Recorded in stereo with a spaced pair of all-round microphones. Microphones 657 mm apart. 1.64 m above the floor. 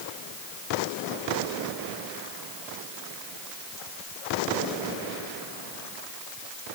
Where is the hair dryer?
No hair dryer in this recording.